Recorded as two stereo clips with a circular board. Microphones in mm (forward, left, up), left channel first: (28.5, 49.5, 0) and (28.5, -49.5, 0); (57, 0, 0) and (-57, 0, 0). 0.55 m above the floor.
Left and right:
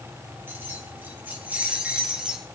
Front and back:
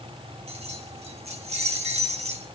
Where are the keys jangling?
155° right, 3 m; by 2.5 s 175° right, 1.9 m.